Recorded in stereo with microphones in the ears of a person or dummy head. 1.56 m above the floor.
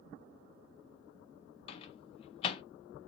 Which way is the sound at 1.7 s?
35° left (ahead or behind).